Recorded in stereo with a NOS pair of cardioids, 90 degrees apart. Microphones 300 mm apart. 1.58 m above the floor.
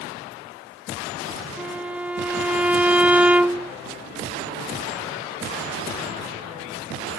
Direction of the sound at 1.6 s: 5° right.